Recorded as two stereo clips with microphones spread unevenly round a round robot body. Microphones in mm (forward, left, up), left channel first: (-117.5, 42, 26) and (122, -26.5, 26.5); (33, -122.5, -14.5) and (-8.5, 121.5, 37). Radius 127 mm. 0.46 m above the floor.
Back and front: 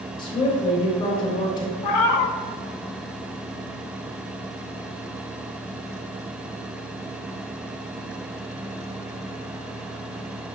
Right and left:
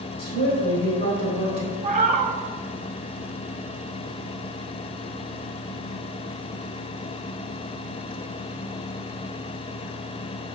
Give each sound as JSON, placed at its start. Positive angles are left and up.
{"t": 0.2, "sound": "a woman speaking", "azimuth_deg": -125, "distance_m": 2.0}
{"t": 1.8, "sound": "a cat meowing", "azimuth_deg": 165, "distance_m": 0.7}